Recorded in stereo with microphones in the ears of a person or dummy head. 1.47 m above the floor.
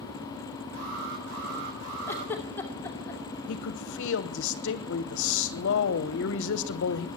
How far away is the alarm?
About 6 m.